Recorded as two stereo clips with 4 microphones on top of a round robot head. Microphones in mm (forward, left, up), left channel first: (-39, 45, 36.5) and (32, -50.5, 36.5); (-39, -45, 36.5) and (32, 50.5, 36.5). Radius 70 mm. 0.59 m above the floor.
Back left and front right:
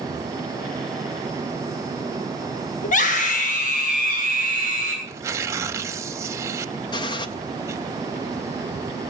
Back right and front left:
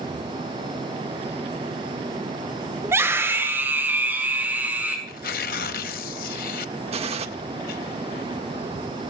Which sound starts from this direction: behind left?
A scream, at 2.8 s.